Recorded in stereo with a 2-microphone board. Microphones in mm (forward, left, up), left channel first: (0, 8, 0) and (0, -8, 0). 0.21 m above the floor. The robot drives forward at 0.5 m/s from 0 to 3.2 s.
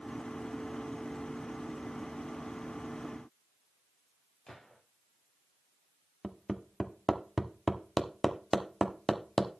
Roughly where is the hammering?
Centre.